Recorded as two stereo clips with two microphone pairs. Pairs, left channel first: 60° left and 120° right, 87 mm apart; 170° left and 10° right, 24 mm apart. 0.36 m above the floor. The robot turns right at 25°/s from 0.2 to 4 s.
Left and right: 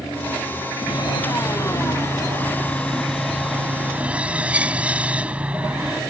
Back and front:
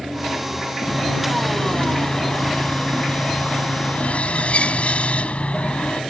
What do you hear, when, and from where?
0.9 s sawing: 90° left; by 6.0 s 165° left